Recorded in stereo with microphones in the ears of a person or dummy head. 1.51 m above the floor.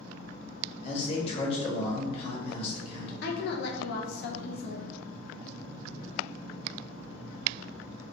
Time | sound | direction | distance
0.8 | a man speaking | 35° left (ahead or behind) | 1.1 m
3.2 | a woman speaking | 60° left (ahead or behind) | 0.5 m